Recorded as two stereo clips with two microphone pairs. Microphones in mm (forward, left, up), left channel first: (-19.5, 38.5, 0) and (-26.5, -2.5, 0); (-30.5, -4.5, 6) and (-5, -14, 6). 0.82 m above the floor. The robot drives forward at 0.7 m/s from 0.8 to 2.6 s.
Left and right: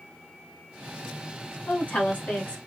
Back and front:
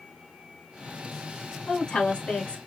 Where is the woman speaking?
115° left, 1.5 m; by 2.6 s 135° left, 1.9 m.